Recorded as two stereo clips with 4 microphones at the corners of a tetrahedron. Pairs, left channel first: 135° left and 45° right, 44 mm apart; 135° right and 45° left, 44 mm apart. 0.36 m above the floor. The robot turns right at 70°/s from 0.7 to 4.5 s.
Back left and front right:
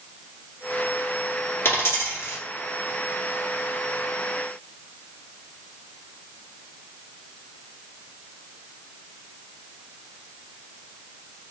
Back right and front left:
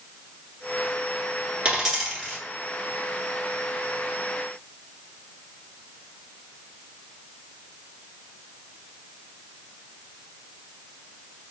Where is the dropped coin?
110° left, 2.0 m; by 2.4 s 160° left, 2.0 m.